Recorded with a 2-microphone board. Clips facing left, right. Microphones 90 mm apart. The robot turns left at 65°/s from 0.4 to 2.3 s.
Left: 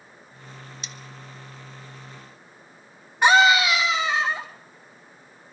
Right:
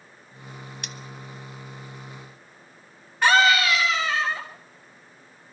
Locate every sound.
0.8 s cutlery clinking: 60° right (ahead or behind), 1.1 m; by 0.9 s 65° right (ahead or behind), 1.1 m
3.2 s a scream: 15° left (ahead or behind), 4.5 m